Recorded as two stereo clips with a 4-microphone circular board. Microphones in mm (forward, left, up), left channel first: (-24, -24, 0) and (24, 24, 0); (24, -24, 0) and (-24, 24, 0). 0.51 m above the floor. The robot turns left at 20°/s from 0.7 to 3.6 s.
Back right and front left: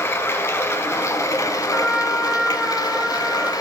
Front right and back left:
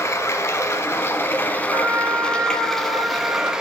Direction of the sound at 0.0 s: 90° right.